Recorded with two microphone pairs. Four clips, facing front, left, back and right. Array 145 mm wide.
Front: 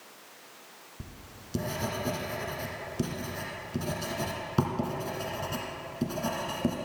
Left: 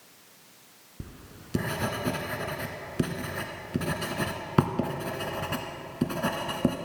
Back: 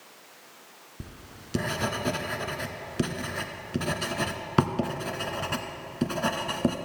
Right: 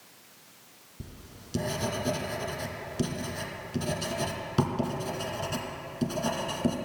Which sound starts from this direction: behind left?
Writing, at 1.0 s.